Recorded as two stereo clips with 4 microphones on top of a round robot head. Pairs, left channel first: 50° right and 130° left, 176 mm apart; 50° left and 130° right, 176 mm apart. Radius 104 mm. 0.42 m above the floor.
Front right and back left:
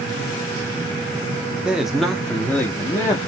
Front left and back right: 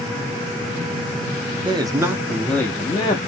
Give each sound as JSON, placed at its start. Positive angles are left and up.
{"t": 1.6, "sound": "a man speaking", "azimuth_deg": -150, "distance_m": 0.8}